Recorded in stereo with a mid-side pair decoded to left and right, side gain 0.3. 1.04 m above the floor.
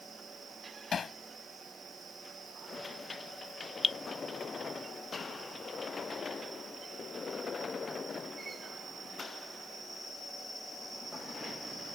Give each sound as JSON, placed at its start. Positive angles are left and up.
{"t": 0.9, "sound": "hammering", "azimuth_deg": 65}
{"t": 3.8, "sound": "dripping", "azimuth_deg": 45}